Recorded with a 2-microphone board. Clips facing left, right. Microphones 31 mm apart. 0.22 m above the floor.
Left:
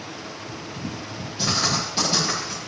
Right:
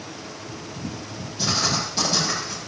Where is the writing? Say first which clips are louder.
Even; 25° left (ahead or behind), 6.5 m.